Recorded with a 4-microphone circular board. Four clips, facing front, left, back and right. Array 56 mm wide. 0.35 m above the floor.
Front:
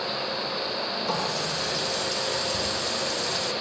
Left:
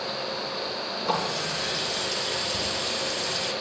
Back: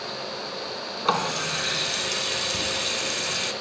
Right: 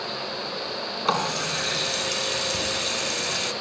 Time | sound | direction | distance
1.1 | a running tap | 140° right | 2.5 m